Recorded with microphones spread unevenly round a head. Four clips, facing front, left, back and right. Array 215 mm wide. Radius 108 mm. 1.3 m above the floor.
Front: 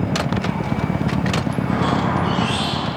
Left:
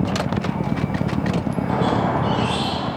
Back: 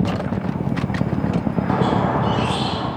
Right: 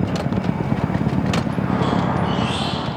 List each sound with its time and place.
1.7 s a squeak: 135° left, 2.5 m